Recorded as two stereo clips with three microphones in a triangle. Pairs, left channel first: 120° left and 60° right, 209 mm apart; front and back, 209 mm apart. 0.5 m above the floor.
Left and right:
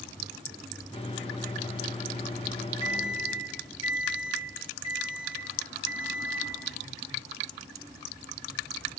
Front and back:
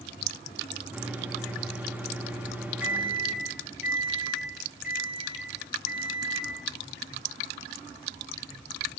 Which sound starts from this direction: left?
A microwave, at 0.9 s.